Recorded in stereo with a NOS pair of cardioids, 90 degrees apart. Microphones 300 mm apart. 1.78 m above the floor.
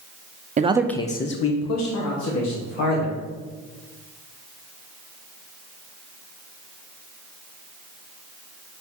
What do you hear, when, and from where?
0.6 s a man speaking: 25° right, 0.8 m; by 3.2 s 80° left, 3 m